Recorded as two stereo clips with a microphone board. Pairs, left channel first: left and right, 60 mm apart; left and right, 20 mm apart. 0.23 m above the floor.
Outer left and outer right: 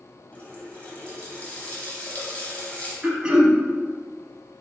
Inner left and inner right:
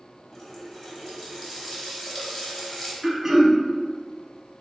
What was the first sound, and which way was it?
A running tap, 25° left (ahead or behind).